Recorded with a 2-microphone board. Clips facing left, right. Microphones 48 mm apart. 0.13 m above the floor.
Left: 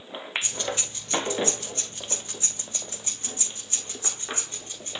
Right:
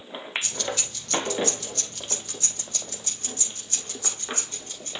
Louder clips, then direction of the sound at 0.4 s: Even; 25° left (ahead or behind).